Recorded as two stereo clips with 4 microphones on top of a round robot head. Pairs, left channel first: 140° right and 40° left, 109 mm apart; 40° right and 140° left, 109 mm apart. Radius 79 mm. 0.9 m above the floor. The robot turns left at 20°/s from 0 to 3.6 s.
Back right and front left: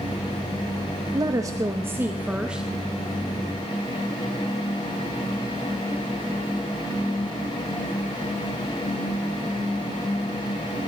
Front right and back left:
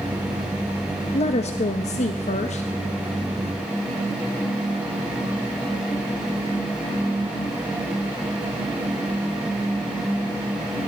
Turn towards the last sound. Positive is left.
turn(degrees=-65)